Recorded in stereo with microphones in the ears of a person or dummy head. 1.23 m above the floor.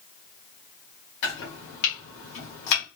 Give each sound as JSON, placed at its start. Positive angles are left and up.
{"t": 1.2, "sound": "chopping", "side_deg": 45, "distance_m": 1.3}